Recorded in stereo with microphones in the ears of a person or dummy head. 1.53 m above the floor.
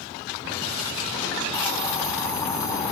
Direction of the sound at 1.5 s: 20° left (ahead or behind).